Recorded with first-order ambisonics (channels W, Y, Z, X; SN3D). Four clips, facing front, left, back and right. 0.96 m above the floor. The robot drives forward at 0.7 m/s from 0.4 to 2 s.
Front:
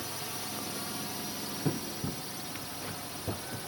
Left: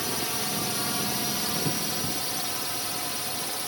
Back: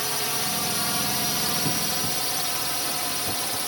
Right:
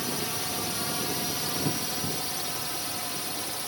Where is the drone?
170° left.